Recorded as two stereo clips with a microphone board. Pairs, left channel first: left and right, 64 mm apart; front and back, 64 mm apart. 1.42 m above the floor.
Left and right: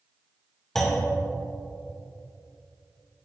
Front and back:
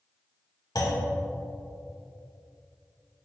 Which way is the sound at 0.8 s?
10° left.